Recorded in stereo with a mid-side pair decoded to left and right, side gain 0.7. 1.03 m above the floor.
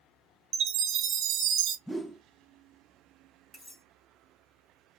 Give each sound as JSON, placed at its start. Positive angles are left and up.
{"t": 0.5, "sound": "a chime", "azimuth_deg": -60, "distance_m": 0.7}
{"t": 1.9, "sound": "a whoosh", "azimuth_deg": 0, "distance_m": 0.5}
{"t": 3.5, "sound": "cutlery clinking", "azimuth_deg": 10, "distance_m": 1.3}